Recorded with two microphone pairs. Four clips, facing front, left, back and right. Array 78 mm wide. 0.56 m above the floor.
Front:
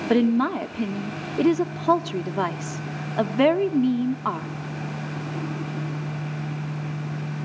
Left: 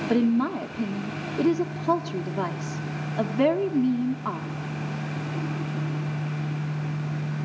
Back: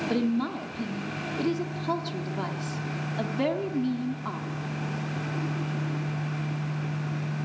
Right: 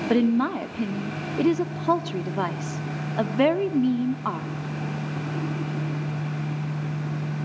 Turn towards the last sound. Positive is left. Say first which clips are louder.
# right 1 dB, front 8 dB
turn(degrees=-35)